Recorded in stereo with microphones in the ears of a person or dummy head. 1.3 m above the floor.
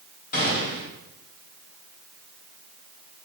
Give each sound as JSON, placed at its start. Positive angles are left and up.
{"t": 0.3, "sound": "a gunshot", "side_deg": 50, "distance_m": 2.5}